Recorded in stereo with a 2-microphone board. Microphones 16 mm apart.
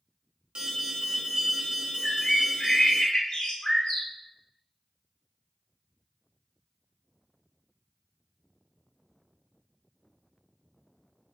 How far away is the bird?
About 0.8 m.